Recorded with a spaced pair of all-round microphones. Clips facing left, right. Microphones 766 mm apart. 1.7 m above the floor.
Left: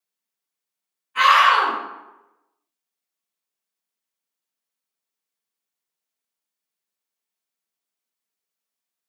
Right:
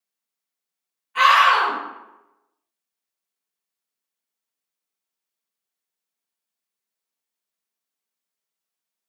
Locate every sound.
1.1 s a scream: 25° right (ahead or behind), 1.0 m